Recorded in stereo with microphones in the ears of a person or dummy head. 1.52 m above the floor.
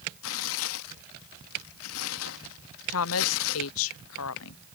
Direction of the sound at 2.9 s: 75° left (ahead or behind).